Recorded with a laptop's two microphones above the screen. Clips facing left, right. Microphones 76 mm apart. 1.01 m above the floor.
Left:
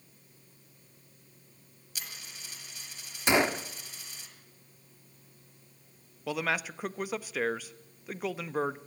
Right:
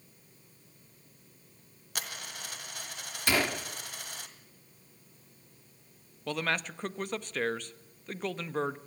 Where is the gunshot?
20° left (ahead or behind), 0.8 m.